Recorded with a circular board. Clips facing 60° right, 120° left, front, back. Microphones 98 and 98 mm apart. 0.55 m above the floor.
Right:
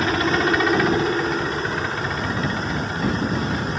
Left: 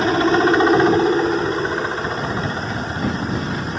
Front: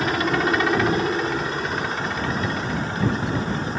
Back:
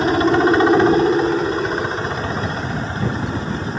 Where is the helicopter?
155° left.